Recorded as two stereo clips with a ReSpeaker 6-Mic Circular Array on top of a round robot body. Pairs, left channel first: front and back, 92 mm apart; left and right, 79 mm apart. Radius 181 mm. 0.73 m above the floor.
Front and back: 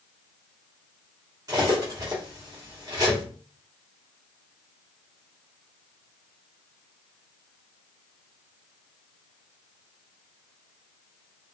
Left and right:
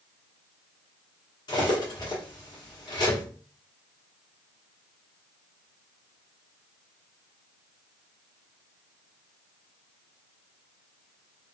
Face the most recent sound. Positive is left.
turn(degrees=130)